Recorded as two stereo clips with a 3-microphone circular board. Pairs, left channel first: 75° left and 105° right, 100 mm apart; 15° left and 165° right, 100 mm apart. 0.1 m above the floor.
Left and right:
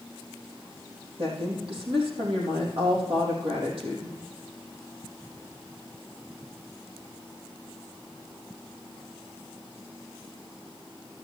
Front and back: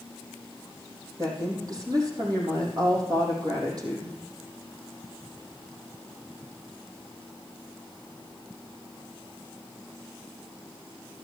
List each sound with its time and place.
1.2 s a woman speaking: 120° right, 4 m